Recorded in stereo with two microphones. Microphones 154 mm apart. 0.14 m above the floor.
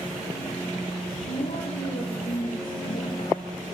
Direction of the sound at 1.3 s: 70° left (ahead or behind).